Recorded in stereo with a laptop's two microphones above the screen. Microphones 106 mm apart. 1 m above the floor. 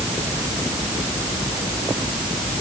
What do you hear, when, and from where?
Only background noise.